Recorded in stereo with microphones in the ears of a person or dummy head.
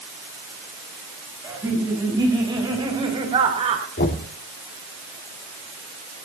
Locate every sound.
1.4 s laughter: 20° right (ahead or behind), 6.5 m; by 3.9 s 35° right (ahead or behind), 3.5 m
4.0 s knocking: 65° left (ahead or behind), 2.5 m